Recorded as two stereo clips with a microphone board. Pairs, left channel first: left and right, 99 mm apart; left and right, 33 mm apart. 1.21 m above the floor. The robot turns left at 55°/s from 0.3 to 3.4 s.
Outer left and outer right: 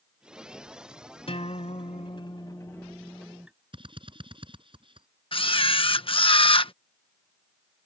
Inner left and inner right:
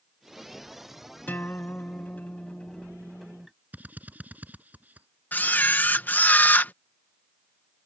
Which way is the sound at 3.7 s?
55° right (ahead or behind).